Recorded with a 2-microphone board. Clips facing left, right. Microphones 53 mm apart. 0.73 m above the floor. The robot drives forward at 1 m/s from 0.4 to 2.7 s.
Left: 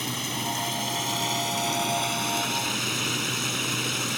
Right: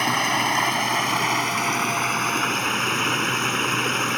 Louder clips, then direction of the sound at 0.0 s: Right 10 dB; 60° right (ahead or behind).